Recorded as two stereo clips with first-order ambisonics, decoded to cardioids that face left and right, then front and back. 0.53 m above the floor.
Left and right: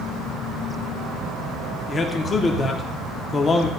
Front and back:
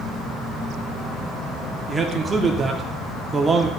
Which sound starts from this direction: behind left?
A man speaking, at 1.9 s.